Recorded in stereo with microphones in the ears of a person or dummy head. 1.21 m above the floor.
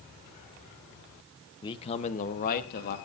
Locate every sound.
1.6 s a man speaking: 20° left (ahead or behind), 0.7 m; by 3.0 s 50° left (ahead or behind), 1.5 m